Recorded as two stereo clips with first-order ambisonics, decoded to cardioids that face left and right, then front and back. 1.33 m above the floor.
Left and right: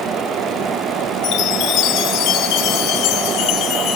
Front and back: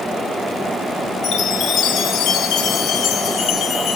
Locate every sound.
1.2 s a chime: 50° left, 1.1 m